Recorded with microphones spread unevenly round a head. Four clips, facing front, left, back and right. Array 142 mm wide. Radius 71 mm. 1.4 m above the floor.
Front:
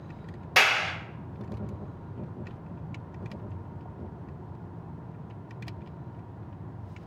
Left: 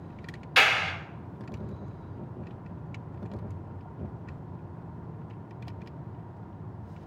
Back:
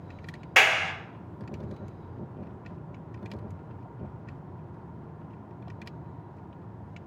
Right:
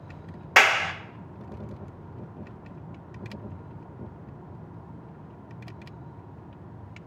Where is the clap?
90° right, 1.2 m.